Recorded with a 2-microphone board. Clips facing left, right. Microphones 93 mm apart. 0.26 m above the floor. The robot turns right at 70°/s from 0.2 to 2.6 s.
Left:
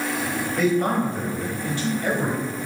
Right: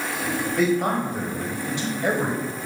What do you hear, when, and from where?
0.6 s a man speaking: centre (ahead or behind), 1.0 m; by 2.4 s 15° right (ahead or behind), 1.0 m